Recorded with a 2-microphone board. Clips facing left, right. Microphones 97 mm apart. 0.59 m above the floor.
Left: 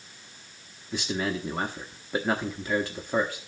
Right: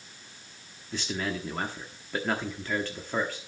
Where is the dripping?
No dripping in this recording.